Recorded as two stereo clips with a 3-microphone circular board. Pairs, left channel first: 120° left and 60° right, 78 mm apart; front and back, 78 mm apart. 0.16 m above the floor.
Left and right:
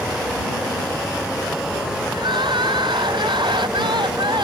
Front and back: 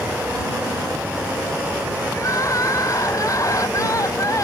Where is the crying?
45° right.